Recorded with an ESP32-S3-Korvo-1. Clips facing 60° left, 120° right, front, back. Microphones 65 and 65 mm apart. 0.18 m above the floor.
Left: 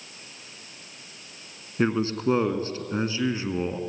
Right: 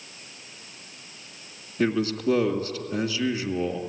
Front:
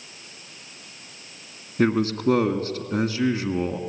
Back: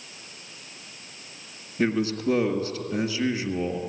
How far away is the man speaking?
About 2 m.